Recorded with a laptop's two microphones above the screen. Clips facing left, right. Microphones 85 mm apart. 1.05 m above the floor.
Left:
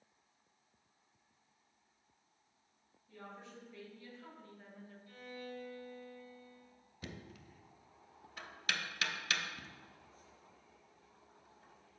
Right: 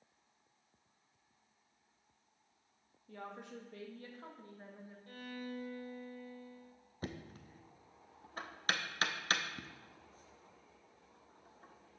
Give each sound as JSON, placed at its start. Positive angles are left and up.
{"t": 3.1, "sound": "a woman speaking", "side_deg": -65, "distance_m": 2.0}
{"t": 5.1, "sound": "a violin", "side_deg": -50, "distance_m": 1.4}
{"t": 7.0, "sound": "knocking", "side_deg": -40, "distance_m": 0.6}